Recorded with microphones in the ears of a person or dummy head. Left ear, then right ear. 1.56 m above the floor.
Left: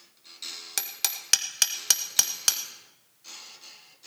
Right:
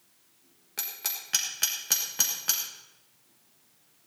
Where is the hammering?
75° left (ahead or behind), 1.6 m.